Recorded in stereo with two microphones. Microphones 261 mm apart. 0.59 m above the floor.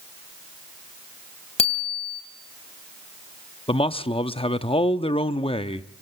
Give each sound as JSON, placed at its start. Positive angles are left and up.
{"t": 1.6, "sound": "a bicycle bell", "side_deg": 20, "distance_m": 3.0}
{"t": 3.7, "sound": "a man speaking", "side_deg": 20, "distance_m": 0.6}